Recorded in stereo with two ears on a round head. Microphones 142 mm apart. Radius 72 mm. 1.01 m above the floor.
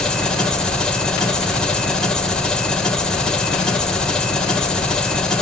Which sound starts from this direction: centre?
An engine running, at 0.0 s.